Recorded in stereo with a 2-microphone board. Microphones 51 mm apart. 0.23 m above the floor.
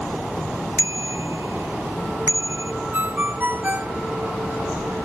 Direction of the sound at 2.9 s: 35° right (ahead or behind).